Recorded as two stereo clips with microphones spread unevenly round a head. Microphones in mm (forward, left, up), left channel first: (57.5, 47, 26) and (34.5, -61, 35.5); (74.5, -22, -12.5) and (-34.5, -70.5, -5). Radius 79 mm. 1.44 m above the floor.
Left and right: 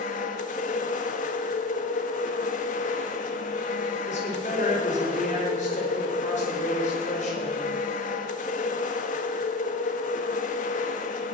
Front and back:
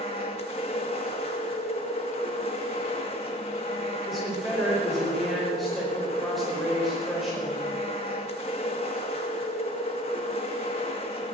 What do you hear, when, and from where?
0.0 s a machine running: 80° left, 1.7 m
4.1 s a woman speaking: 115° left, 5 m